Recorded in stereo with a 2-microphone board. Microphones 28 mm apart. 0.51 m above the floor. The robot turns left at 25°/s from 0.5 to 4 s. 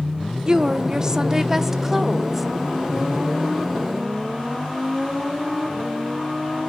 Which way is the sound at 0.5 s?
125° right.